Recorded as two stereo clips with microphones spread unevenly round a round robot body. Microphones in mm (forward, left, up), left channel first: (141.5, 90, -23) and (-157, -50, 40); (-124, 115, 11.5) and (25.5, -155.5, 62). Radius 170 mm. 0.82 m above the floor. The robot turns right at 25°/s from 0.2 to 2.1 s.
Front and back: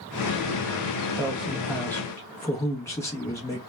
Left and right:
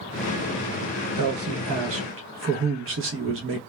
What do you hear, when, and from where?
1.2 s a man speaking: 60° right, 0.6 m; by 3.6 s 35° right, 0.6 m